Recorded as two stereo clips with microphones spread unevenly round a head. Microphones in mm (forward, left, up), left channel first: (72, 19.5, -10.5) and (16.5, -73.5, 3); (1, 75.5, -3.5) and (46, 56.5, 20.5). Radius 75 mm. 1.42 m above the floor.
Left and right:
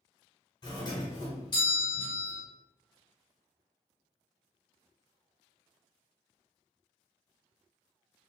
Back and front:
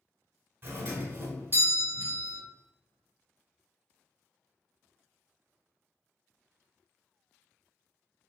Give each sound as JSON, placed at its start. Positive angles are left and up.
{"t": 0.6, "sound": "a doorbell", "azimuth_deg": 30, "distance_m": 1.5}